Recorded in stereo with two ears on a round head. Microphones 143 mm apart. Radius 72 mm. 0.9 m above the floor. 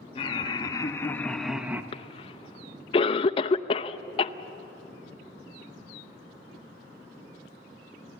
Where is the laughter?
35° left (ahead or behind), 2 m; by 1.8 s 15° right (ahead or behind), 1.3 m.